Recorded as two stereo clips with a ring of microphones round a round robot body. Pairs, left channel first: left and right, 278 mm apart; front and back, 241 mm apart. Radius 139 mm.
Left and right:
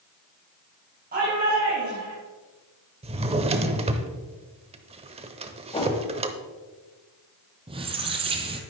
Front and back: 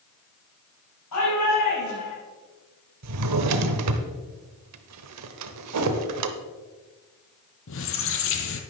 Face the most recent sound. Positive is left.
turn(degrees=-20)